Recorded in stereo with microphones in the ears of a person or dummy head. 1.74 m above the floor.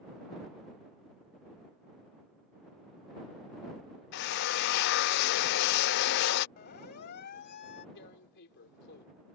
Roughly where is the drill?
Left.